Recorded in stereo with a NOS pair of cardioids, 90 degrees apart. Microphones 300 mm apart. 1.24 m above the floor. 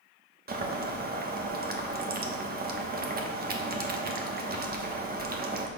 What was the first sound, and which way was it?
Boiling, 30° right.